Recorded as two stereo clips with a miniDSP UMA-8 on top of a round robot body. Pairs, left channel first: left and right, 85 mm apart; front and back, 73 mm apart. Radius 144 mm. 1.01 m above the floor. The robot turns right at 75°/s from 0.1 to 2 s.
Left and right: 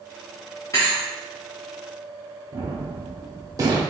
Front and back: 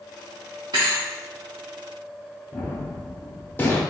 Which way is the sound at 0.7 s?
140° left.